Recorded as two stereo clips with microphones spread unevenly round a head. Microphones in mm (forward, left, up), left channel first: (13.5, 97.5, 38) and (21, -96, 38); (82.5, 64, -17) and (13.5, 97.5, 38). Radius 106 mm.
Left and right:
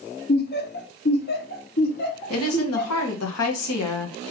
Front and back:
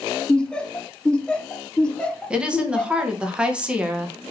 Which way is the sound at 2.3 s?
85° left.